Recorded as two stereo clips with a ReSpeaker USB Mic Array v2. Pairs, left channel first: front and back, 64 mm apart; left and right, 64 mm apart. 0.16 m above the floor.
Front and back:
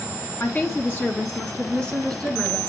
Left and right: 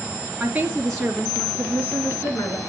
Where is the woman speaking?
35° right, 1.5 m; by 2.6 s 75° left, 2 m.